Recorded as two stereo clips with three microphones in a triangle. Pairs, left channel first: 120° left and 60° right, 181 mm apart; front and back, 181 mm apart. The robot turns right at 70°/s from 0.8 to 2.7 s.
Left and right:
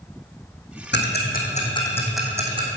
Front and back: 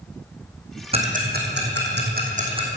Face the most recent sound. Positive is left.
turn(degrees=-110)